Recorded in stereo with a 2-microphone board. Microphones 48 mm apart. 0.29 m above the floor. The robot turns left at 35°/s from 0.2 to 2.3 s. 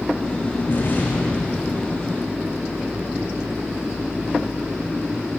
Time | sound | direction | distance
0.7 | an explosion | 45° left | 6 m